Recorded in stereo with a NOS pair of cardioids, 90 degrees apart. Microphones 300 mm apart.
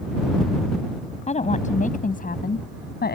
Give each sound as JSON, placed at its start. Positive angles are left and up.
{"t": 1.3, "sound": "a woman speaking", "azimuth_deg": 25}